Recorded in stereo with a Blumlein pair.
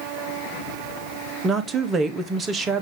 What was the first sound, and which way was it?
A woman speaking, 20° right.